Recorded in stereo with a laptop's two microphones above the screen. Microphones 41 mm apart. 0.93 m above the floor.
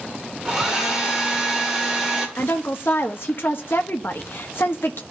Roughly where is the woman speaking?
Left.